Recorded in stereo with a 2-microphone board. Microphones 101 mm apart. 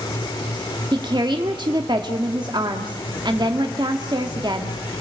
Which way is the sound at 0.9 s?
45° right (ahead or behind).